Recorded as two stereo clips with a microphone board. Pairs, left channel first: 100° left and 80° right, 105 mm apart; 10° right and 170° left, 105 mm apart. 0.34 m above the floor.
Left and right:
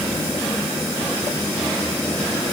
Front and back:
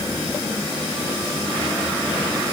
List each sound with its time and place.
Only background noise.